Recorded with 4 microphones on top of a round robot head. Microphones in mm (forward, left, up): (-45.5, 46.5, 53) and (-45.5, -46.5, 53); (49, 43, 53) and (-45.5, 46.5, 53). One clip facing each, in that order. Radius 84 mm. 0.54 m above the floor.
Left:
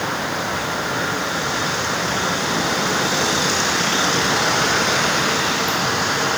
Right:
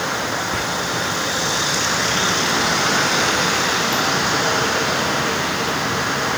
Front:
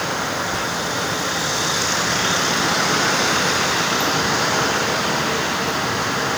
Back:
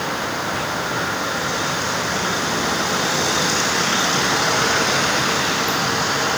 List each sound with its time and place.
0.5 s whispering: 60° right, 2 m